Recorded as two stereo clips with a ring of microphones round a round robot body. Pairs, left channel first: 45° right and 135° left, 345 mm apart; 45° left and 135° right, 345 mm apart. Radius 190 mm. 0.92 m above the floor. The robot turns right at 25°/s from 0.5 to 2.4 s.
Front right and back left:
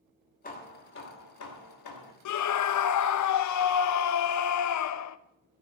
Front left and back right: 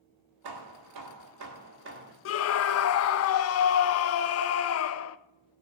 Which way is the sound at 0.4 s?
110° right.